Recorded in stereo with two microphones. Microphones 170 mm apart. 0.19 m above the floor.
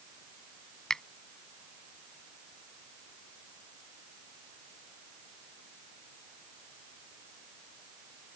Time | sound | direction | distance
0.9 | a finger snap | 5° left (ahead or behind) | ?